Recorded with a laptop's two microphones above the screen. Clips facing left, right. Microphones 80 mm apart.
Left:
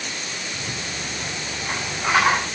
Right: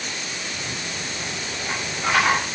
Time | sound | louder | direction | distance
0.5 | a rattle | even | 10° left (ahead or behind) | 8 m